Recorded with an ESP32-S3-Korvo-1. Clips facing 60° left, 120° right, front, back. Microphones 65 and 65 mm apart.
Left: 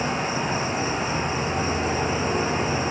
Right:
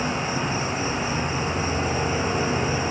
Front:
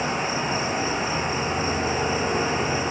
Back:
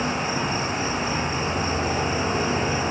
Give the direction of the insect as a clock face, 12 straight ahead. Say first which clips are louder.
Even, even; 10 o'clock.